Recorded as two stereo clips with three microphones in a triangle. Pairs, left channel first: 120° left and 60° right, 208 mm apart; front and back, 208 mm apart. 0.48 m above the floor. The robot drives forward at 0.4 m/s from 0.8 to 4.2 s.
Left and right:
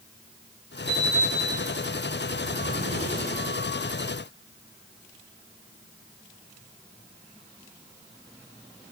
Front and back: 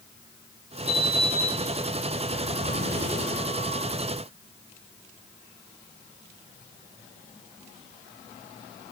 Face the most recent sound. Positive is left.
turn(degrees=155)